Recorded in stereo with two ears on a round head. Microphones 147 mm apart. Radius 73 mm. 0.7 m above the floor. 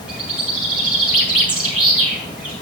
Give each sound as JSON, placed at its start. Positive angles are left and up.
{"t": 0.1, "sound": "a bird", "side_deg": -5, "distance_m": 4.5}